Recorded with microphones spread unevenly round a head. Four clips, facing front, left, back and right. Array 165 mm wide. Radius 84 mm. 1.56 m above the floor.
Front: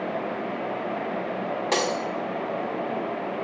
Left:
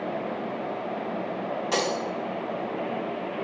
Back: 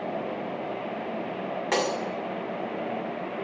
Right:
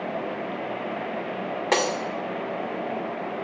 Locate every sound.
1.7 s breaking glass: 70° right, 1.9 m